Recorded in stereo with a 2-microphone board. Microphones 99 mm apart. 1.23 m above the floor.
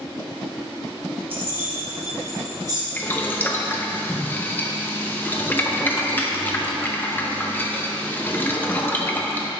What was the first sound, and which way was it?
Keys jangling, 20° right (ahead or behind).